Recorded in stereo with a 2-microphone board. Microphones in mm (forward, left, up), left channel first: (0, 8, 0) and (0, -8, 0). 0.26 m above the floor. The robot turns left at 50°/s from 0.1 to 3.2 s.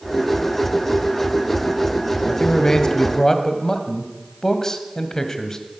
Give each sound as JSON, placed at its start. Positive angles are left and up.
{"t": 2.3, "sound": "a man speaking", "azimuth_deg": 90, "distance_m": 1.4}